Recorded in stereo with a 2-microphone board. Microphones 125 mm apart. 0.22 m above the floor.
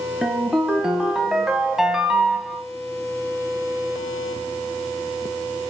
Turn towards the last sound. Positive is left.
turn(degrees=-5)  # may be behind; listen again after turning